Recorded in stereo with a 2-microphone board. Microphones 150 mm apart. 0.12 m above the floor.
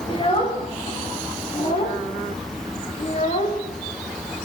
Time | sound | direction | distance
0.1 | a child speaking | 35° left (ahead or behind) | 5.5 m